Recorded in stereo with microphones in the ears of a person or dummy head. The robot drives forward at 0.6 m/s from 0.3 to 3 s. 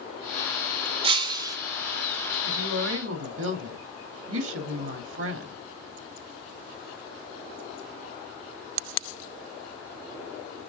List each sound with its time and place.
1.0 s breaking glass: 35° right (ahead or behind), 0.5 m; by 1.6 s 25° right (ahead or behind), 0.8 m
2.5 s a woman speaking: 80° right, 2.5 m; by 5.6 s 85° right, 2.5 m